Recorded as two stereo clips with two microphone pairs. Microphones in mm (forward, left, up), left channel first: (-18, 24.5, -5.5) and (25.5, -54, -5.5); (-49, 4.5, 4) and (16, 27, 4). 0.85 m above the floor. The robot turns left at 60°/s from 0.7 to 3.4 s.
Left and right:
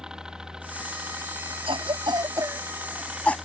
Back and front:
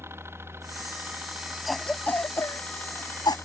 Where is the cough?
70° right; by 3.4 s 170° right.